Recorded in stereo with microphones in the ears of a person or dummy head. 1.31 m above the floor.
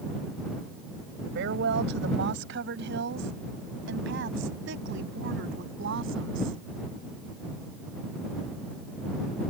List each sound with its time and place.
1.4 s a woman speaking: 60° right (ahead or behind); by 6.6 s 65° right (ahead or behind)